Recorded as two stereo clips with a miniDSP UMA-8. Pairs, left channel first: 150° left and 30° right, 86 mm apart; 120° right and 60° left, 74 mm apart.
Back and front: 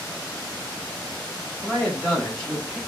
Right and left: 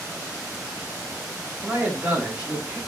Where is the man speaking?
65° left, 1.4 m.